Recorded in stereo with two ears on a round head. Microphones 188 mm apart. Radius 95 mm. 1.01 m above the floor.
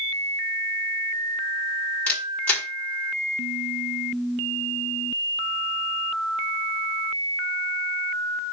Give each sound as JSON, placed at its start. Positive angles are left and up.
{"t": 2.1, "sound": "a camera shutter", "side_deg": 5, "distance_m": 5.5}